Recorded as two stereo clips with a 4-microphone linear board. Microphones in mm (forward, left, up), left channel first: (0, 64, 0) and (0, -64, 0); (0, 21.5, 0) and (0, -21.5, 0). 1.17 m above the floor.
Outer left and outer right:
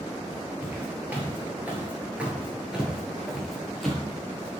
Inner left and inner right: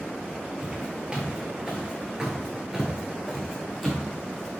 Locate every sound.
0.6 s footsteps: 15° right (ahead or behind), 1.5 m; by 4.6 s 5° left (ahead or behind), 1.7 m